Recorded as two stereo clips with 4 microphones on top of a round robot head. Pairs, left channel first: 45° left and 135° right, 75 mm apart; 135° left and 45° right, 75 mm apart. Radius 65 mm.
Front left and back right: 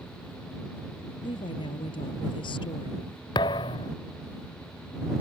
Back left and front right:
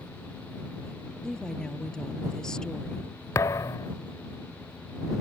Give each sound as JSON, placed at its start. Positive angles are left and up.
{"t": 1.2, "sound": "a woman speaking", "azimuth_deg": 50}
{"t": 3.4, "sound": "a thud", "azimuth_deg": 80}